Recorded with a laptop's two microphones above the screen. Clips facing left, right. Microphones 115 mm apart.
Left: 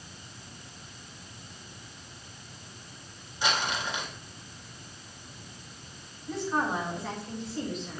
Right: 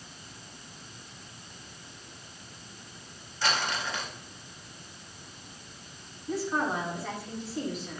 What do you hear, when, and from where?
3.4 s crumpling: 15° left (ahead or behind), 1.6 m
6.3 s a woman speaking: 5° right (ahead or behind), 6.5 m